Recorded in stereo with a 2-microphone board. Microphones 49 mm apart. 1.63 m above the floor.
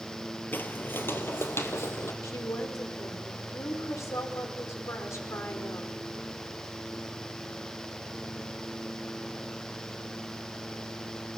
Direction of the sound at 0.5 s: 40° left (ahead or behind).